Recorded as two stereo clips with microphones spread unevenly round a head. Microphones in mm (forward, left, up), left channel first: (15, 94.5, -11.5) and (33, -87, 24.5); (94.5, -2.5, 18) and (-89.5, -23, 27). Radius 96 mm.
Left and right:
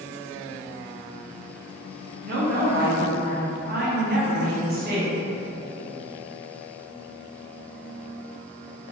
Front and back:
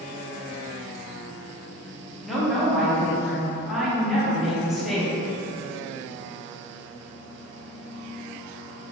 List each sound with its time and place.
2.2 s a woman speaking: 80° right, 1.0 m